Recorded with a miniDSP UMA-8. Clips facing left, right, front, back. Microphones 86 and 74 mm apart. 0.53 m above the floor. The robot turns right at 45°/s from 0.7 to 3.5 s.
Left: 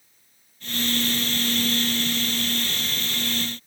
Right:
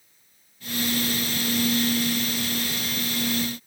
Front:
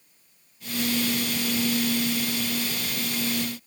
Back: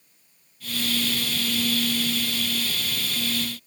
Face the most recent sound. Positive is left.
No sound to turn to.